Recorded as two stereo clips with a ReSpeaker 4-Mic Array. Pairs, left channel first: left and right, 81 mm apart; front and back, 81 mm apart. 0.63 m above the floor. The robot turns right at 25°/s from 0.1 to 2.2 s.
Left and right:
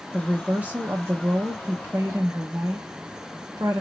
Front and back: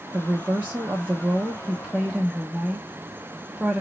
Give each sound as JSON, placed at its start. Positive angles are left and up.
{"t": 0.1, "sound": "a woman speaking", "azimuth_deg": -155, "distance_m": 0.6}